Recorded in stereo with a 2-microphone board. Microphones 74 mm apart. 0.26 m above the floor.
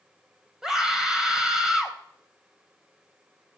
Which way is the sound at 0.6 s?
5° right (ahead or behind).